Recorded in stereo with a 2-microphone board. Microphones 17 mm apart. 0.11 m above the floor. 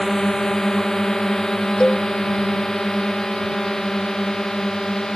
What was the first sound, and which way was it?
A drone, 30° left (ahead or behind).